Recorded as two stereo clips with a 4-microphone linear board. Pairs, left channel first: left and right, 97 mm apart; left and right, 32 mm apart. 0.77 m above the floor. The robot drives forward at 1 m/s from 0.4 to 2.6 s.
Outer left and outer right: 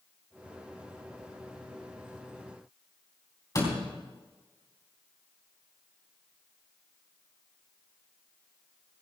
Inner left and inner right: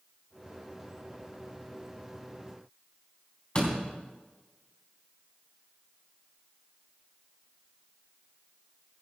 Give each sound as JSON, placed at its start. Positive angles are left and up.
{"t": 3.5, "sound": "a door slam", "side_deg": 40, "distance_m": 4.0}